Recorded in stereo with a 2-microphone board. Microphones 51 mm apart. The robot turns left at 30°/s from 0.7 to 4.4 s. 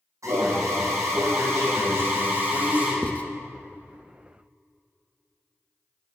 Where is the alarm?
80° right, 5.5 m; by 2.9 s 150° right, 5.5 m.